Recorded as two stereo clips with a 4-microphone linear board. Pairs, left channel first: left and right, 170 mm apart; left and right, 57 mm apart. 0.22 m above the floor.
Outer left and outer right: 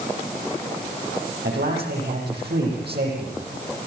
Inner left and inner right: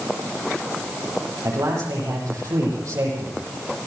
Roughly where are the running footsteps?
No running footsteps in this recording.